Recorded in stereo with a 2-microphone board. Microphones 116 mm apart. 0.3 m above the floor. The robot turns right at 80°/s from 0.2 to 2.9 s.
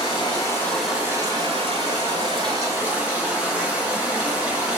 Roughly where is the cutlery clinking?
No cutlery clinking in this recording.